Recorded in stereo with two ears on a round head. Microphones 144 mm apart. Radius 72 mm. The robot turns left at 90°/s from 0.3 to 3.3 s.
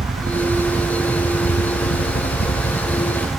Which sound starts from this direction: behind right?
A helicopter, at 0.0 s.